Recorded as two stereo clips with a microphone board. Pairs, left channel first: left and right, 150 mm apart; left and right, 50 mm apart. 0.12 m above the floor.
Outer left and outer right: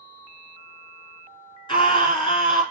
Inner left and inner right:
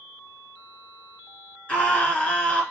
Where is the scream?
30° left (ahead or behind), 1.8 m.